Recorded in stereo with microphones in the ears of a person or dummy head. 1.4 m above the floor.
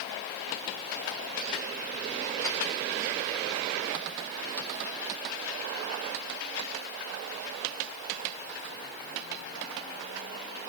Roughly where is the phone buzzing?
I don't hear a phone buzzing.